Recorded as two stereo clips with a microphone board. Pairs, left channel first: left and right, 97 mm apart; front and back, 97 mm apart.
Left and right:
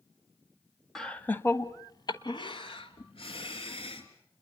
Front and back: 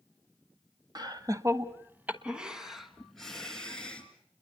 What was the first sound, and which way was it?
Laughter, 175° left.